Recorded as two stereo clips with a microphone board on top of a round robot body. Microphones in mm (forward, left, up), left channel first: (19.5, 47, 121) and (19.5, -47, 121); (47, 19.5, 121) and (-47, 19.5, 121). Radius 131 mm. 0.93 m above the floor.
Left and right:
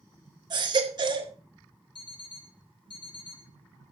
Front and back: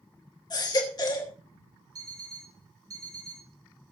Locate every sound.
0.5 s a baby crying: 50° right, 2.5 m
1.9 s an alarm clock: 125° left, 2 m